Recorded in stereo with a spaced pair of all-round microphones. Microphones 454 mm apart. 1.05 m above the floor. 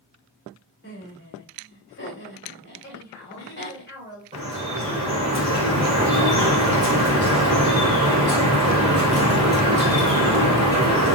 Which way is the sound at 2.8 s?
20° left (ahead or behind).